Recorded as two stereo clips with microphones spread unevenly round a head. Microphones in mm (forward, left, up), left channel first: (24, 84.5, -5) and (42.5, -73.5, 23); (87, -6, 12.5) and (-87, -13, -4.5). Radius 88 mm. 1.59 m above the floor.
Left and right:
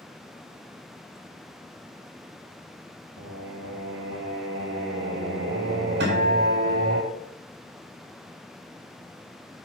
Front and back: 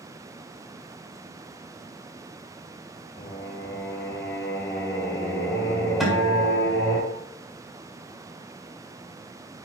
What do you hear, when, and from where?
3.2 s singing: 75° right, 3.5 m
6.0 s a guitar: 90° right, 4 m